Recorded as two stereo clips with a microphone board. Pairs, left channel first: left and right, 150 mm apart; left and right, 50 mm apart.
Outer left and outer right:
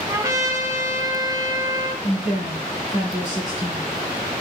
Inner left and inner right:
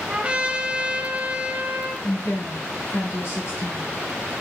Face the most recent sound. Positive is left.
turn(degrees=55)  # may be behind; listen again after turning